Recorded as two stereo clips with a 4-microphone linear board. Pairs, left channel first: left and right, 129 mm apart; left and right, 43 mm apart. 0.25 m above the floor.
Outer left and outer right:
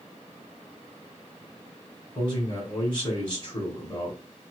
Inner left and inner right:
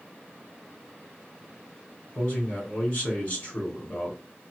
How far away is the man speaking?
About 2.5 m.